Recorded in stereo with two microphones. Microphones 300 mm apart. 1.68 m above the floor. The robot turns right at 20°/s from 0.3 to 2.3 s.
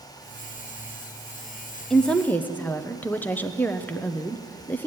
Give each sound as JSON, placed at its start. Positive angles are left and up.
{"t": 1.9, "sound": "a woman speaking", "side_deg": 0, "distance_m": 0.6}